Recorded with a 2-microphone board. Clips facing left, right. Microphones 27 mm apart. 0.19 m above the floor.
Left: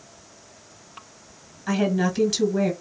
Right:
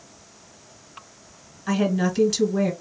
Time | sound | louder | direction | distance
1.7 | a woman speaking | even | centre (ahead or behind) | 1.6 m